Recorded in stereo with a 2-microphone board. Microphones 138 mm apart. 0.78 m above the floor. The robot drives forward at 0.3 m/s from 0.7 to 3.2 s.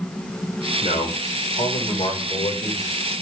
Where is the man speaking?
55° left (ahead or behind), 3 m; by 3.1 s 45° left (ahead or behind), 3.5 m.